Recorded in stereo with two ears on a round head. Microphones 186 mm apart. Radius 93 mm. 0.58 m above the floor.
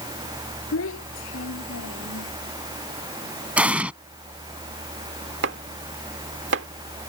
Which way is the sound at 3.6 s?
5° right (ahead or behind).